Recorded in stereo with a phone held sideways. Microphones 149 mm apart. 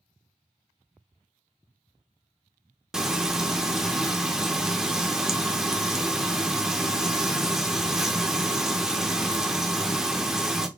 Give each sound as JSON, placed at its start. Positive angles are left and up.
{"t": 2.9, "sound": "frying", "side_deg": -5, "distance_m": 0.6}